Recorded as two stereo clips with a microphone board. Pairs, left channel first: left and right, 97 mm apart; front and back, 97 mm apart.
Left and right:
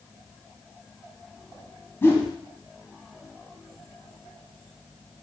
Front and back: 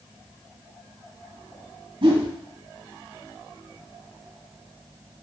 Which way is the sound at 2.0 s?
155° left.